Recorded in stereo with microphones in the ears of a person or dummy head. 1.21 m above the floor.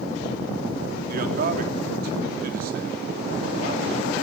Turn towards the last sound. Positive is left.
turn(degrees=-45)  # may be behind; listen again after turning